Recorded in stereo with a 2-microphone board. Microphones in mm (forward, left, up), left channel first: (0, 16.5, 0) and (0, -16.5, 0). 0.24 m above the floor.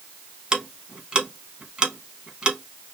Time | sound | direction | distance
0.5 | ticking | 30° right (ahead or behind) | 0.6 m